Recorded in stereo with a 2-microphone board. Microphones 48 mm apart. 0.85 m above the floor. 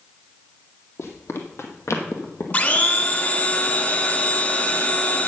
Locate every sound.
1.0 s running footsteps: 60° left (ahead or behind), 2 m; by 3.5 s 40° left (ahead or behind), 1.9 m
2.5 s a blender: 30° left (ahead or behind), 2 m